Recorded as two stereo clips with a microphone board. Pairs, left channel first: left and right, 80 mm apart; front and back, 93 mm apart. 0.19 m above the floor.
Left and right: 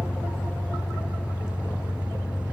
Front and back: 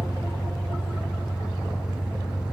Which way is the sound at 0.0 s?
120° right.